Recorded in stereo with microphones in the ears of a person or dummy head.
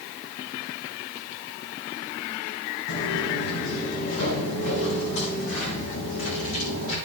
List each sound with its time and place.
2.9 s footsteps: 65° left (ahead or behind), 6 m; by 7.0 s 75° left (ahead or behind), 8 m